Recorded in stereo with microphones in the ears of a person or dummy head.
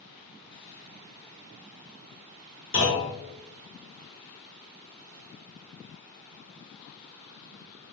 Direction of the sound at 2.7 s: 60° left (ahead or behind).